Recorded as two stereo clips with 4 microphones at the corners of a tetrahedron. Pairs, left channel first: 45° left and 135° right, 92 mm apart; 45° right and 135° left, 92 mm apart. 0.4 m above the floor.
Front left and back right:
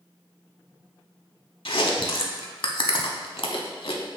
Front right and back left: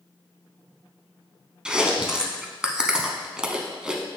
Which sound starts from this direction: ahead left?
Chewing, at 1.6 s.